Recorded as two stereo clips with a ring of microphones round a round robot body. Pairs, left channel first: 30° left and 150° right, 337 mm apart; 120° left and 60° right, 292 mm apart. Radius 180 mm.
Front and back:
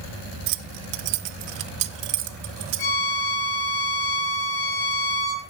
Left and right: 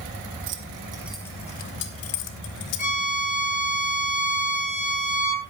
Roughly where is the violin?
Ahead left.